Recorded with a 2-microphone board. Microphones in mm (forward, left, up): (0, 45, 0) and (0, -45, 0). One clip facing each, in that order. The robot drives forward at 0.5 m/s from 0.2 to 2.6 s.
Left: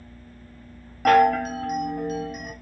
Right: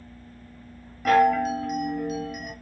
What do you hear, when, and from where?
1.1 s a chime: 65° left (ahead or behind), 0.7 m; by 2.5 s 30° left (ahead or behind), 1.2 m